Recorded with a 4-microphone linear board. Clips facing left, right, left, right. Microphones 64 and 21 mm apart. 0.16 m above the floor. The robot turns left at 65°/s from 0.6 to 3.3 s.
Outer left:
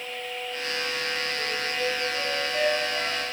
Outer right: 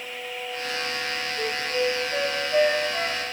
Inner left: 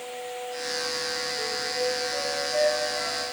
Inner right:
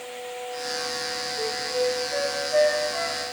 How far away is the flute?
About 8 m.